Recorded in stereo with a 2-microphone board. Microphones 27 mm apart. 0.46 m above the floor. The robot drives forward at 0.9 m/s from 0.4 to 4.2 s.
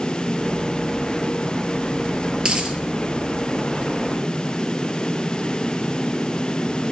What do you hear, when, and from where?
2.4 s a dropped coin: 25° right (ahead or behind), 2.5 m